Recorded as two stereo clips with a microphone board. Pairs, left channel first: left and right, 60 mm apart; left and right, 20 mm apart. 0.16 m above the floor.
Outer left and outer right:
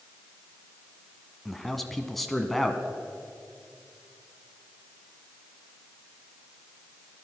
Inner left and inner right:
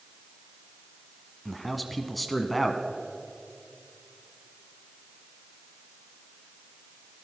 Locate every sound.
1.4 s a man speaking: centre (ahead or behind), 1.1 m